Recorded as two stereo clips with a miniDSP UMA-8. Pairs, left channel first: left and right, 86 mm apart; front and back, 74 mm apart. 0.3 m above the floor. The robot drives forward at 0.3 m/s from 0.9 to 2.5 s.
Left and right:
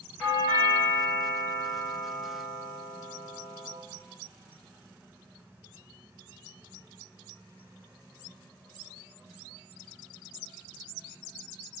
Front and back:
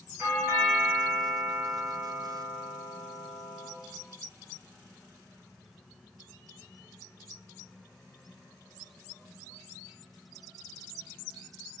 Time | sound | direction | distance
0.2 | a doorbell | 165° left | 1.5 m